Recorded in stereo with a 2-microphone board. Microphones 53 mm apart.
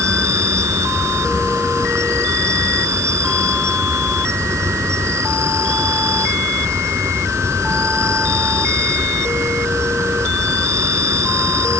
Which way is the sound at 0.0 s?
70° right (ahead or behind).